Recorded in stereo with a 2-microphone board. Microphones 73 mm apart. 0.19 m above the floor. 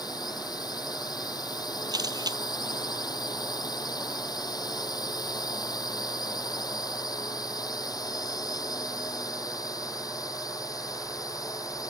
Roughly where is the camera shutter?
Right.